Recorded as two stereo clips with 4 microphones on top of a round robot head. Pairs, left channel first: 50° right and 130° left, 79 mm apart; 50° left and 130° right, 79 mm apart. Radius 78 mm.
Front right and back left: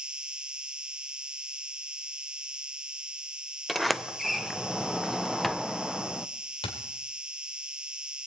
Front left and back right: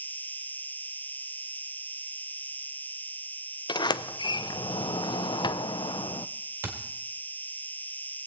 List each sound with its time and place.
0.0 s an insect: 70° left, 0.8 m
3.7 s a sliding door: 40° left, 0.6 m
6.6 s a thud: 65° right, 2.5 m